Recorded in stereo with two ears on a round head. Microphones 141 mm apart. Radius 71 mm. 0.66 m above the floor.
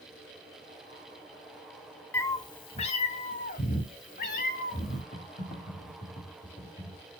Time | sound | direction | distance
2.1 | a cat meowing | 15° left (ahead or behind) | 0.7 m
5.1 | typing on a keyboard | 50° left (ahead or behind) | 1.4 m